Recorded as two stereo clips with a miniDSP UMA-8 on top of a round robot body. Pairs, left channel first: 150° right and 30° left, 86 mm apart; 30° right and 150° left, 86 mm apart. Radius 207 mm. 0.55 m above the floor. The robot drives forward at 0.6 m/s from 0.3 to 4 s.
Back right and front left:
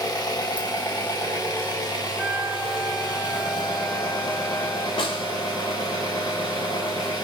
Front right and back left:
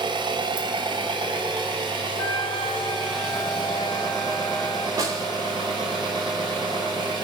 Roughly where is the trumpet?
Ahead right.